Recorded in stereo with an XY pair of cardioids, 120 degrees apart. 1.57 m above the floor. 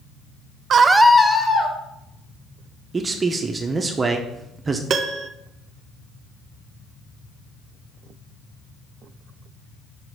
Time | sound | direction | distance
0.7 | a scream | 50° right | 0.5 m
2.9 | a man speaking | 30° right | 0.6 m
4.9 | a piano | 55° right | 0.5 m